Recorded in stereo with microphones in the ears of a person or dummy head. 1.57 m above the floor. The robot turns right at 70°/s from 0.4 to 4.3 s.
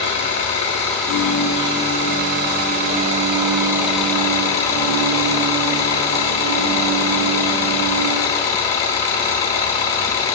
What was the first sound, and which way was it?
An engine running, 115° left.